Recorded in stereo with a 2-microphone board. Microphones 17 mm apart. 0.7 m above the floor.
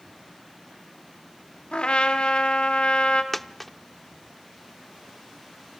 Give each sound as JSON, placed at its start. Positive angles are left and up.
{"t": 1.7, "sound": "a trumpet", "side_deg": 70, "distance_m": 1.6}
{"t": 3.3, "sound": "a dropped coin", "side_deg": 10, "distance_m": 0.6}